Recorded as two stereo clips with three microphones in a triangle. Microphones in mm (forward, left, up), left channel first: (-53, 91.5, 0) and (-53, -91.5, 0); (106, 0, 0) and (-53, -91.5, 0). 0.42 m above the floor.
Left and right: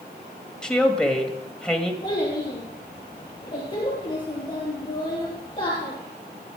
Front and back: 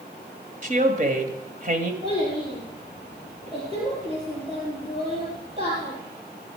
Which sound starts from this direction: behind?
A woman speaking, at 0.6 s.